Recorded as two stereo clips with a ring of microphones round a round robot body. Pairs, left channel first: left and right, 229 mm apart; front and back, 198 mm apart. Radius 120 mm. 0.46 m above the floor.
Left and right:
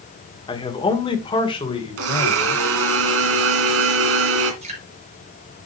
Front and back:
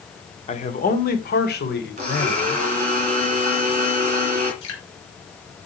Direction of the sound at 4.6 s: 25° right.